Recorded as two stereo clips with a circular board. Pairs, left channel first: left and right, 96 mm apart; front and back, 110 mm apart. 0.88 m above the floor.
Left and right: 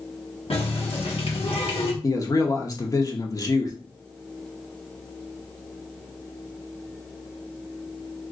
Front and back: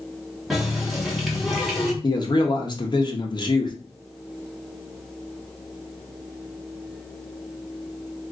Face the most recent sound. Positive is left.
turn(degrees=40)